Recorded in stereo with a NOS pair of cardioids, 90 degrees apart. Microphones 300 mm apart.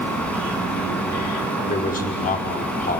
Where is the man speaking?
30° left, 5.5 m.